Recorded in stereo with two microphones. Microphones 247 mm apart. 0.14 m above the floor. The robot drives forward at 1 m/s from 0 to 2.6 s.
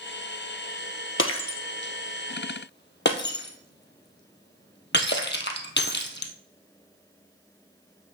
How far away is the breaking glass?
About 1.1 m.